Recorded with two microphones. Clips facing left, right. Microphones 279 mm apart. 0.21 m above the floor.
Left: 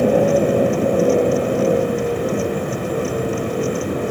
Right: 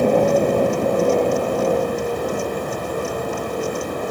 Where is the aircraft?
10° left (ahead or behind); by 4.1 s 30° left (ahead or behind).